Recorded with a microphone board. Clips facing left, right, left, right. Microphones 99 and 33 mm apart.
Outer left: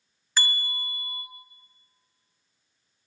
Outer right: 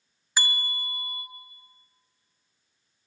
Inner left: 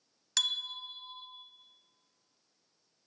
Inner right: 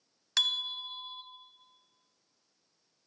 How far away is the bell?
About 0.6 m.